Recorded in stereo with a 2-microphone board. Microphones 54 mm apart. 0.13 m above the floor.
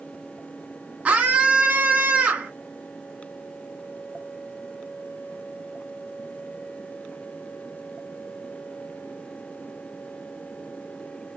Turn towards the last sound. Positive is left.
turn(degrees=-25)  # may be behind; listen again after turning